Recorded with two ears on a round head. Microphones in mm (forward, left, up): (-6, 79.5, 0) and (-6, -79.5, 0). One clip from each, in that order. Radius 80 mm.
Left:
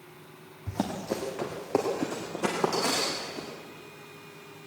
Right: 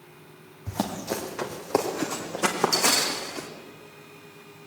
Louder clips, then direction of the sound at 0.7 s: Right 2 dB; 35° right (ahead or behind).